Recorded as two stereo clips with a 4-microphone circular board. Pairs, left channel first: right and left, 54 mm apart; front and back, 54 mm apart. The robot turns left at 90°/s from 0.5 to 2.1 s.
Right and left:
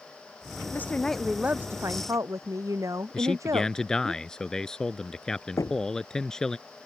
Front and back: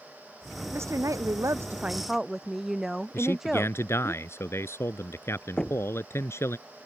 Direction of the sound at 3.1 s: 15° right.